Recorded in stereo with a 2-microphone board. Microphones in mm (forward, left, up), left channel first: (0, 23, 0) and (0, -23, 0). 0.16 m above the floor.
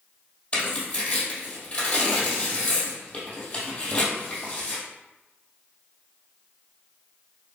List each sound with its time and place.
0.5 s tearing paper: 25° left (ahead or behind), 2.0 m